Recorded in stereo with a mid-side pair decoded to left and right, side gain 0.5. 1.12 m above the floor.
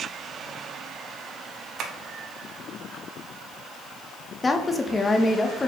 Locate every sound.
1.8 s tapping: 60° right, 0.7 m
4.4 s a woman speaking: 20° left, 0.9 m